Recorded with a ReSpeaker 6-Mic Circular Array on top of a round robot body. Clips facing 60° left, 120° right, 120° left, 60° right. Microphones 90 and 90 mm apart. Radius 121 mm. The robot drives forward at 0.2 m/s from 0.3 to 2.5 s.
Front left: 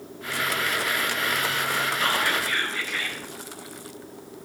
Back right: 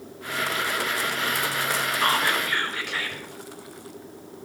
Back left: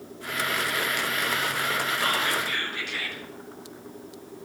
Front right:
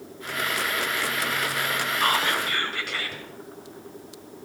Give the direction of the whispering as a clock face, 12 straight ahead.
3 o'clock.